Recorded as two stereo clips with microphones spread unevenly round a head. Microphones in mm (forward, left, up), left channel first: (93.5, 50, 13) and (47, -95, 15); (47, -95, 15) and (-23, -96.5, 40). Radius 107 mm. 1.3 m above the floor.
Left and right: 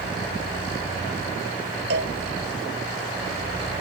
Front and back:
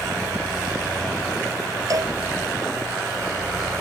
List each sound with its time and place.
1.9 s a cowbell: 150° right